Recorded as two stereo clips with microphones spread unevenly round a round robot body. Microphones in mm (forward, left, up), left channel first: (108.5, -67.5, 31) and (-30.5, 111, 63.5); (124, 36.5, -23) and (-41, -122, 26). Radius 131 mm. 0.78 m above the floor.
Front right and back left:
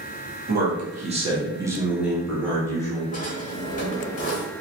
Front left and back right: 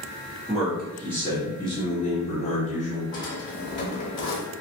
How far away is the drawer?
About 1.1 m.